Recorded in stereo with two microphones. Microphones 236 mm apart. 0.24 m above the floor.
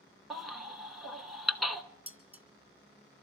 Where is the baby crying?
Centre (ahead or behind), 0.8 m.